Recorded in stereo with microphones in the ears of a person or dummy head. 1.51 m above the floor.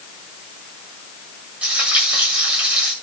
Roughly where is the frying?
Centre.